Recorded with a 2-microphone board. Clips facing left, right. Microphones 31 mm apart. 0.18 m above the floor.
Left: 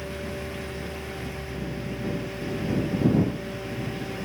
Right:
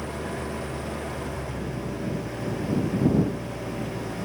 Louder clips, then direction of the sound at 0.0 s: Right 2 dB; 55° right (ahead or behind).